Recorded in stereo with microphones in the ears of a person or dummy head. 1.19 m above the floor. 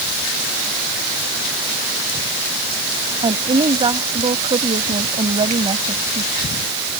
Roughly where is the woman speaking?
Right.